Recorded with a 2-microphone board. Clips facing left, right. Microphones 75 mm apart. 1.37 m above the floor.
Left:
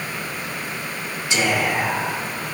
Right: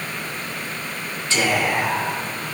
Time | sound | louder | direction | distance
1.3 | whispering | even | 15° left (ahead or behind) | 1.8 m